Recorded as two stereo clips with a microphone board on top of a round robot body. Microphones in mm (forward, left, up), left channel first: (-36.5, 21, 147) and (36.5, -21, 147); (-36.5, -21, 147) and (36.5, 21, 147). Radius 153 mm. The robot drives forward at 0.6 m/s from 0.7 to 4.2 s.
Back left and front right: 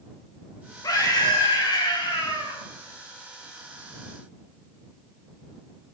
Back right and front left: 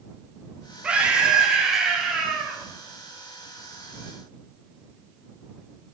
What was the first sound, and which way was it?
A scream, 105° left.